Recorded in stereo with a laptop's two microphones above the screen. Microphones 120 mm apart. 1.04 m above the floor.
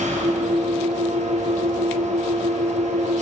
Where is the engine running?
70° right (ahead or behind), 5.5 m.